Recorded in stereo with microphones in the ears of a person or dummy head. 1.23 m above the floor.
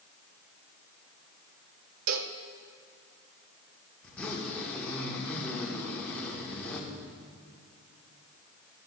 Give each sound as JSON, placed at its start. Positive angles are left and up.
{"t": 2.1, "sound": "a cowbell", "side_deg": -75, "distance_m": 0.7}
{"t": 4.0, "sound": "a zipper", "side_deg": 10, "distance_m": 1.7}